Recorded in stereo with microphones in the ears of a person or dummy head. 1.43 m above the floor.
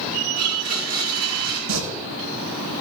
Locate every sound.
0.4 s a blender: 45° right (ahead or behind), 4.5 m
1.7 s singing: 75° right (ahead or behind), 6 m